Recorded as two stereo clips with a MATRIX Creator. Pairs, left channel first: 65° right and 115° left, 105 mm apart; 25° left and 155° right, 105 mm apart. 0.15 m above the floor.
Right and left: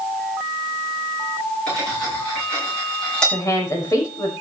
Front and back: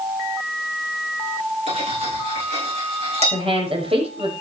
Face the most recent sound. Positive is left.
turn(degrees=-130)